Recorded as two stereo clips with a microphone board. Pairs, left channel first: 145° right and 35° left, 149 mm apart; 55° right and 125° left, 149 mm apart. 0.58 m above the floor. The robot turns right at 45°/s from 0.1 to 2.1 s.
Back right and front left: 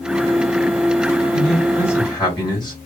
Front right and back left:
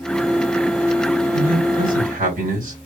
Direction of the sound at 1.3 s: 115° left.